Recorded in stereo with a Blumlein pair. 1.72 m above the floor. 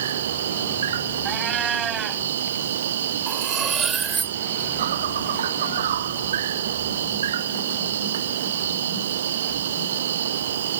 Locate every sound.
0.0 s an insect: 60° right
1.2 s a cat meowing: 25° right
3.3 s cutlery clinking: 20° right